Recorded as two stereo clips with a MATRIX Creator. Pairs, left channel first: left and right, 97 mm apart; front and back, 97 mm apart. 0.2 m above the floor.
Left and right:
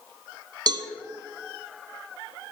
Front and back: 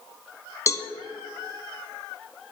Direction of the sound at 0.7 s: 55° right.